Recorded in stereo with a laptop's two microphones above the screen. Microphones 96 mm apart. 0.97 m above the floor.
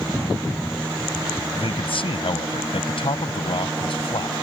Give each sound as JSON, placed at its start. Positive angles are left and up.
{"t": 1.5, "sound": "a man speaking", "side_deg": 70}